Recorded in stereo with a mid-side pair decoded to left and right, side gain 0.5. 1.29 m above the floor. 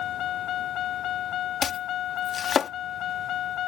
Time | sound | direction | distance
0.0 | a vehicle | 65° left | ?
1.6 | chopping | 50° left | ?